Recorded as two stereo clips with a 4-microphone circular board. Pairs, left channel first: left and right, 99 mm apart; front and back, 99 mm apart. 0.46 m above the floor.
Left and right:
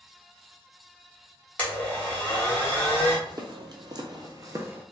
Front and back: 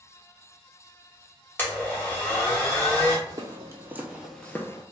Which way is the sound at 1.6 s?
40° left.